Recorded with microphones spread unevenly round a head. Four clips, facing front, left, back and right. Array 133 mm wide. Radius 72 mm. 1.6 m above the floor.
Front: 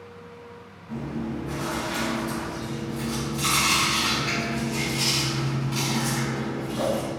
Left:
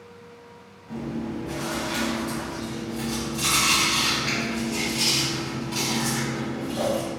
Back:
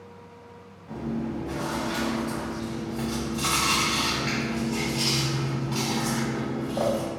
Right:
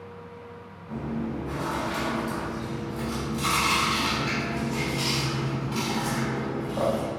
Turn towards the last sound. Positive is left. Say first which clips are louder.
# left 1 dB, even
turn(degrees=-175)